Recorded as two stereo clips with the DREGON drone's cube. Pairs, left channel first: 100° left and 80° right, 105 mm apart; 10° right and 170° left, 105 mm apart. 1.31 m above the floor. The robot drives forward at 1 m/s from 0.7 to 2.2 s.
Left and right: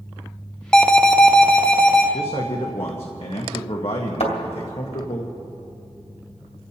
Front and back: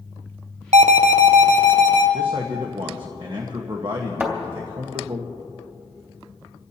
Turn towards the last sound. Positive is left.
turn(degrees=100)